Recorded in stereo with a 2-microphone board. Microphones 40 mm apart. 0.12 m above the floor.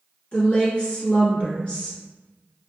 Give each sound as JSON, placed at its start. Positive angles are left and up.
{"t": 0.3, "sound": "a woman speaking", "side_deg": 30, "distance_m": 1.2}